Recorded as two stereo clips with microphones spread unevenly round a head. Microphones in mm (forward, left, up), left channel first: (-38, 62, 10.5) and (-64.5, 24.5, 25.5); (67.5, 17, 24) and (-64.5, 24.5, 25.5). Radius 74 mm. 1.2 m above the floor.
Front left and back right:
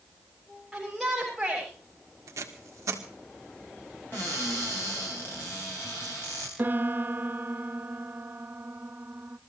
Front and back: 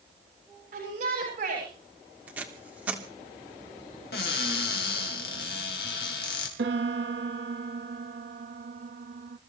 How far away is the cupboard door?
About 3.5 m.